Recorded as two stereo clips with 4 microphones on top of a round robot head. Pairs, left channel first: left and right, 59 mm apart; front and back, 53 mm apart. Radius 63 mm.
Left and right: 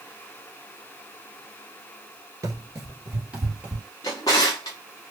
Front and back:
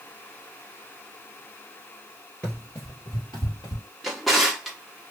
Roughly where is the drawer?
Left.